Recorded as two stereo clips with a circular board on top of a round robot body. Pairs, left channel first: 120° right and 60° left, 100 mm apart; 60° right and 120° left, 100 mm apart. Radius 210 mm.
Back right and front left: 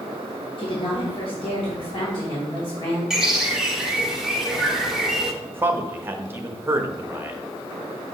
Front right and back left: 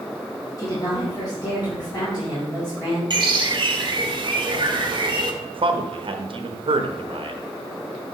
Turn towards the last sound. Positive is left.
turn(degrees=125)